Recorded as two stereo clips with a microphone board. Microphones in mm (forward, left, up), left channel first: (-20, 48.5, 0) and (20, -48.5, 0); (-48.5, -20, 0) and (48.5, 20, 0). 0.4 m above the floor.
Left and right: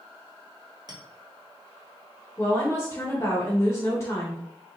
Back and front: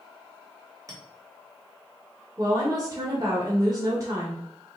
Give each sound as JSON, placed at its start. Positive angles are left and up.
{"t": 0.9, "sound": "a clink", "azimuth_deg": -25, "distance_m": 1.4}
{"t": 2.4, "sound": "a woman speaking", "azimuth_deg": 60, "distance_m": 1.0}